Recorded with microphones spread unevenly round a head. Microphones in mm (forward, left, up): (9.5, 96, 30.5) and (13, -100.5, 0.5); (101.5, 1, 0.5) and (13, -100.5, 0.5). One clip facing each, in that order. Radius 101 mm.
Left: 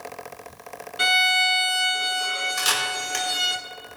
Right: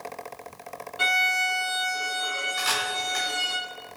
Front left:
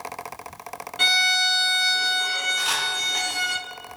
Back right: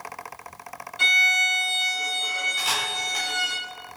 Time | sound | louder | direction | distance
1.0 | a violin | left 4 dB, front left 2 dB | 25° left | 4 m
2.6 | a camera shutter | left 1 dB, even | 140° left | 5.5 m